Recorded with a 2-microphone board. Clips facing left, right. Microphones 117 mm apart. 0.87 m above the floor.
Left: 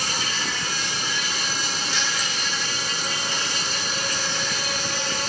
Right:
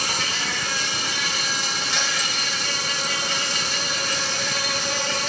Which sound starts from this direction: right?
An insect, at 0.0 s.